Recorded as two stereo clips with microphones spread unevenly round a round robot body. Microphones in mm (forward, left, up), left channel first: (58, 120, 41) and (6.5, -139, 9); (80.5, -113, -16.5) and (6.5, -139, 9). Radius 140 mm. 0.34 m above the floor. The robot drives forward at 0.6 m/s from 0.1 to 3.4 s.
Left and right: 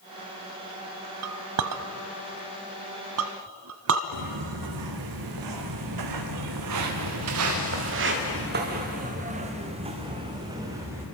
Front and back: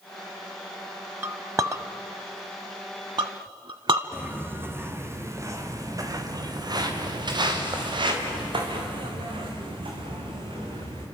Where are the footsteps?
95° right, 5.5 m; by 11.1 s 175° left, 6.5 m.